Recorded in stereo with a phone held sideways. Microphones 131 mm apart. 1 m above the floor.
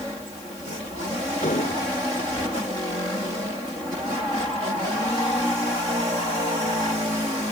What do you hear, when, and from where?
1.4 s an explosion: 75° left (ahead or behind)